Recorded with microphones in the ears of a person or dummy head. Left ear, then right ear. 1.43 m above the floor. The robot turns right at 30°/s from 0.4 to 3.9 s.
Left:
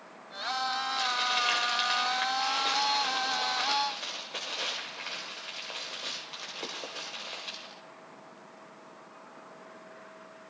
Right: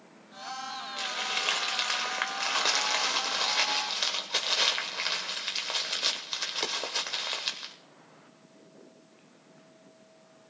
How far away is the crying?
I don't hear crying.